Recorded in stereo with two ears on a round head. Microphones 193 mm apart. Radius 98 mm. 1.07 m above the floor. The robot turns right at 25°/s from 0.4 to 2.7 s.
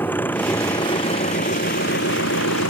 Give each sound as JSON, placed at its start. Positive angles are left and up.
{"t": 0.0, "sound": "an engine running", "azimuth_deg": 10}